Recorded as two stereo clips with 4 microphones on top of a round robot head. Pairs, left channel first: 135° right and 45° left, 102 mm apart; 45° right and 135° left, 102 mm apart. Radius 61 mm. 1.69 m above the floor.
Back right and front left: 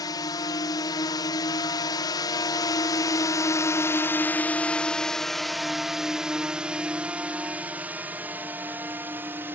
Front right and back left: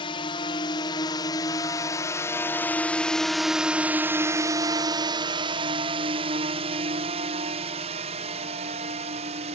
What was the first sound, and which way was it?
A drone, 85° right.